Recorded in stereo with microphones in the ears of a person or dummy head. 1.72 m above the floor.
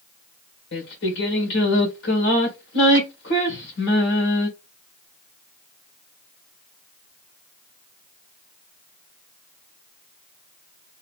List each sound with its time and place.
0.7 s singing: 75° left (ahead or behind), 1.7 m